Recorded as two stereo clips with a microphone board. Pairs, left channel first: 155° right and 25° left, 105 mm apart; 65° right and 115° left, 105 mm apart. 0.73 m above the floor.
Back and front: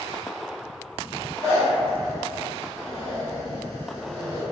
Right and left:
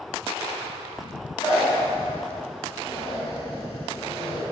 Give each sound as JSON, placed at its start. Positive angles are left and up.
{"t": 1.4, "sound": "a zipper", "azimuth_deg": -85, "distance_m": 1.3}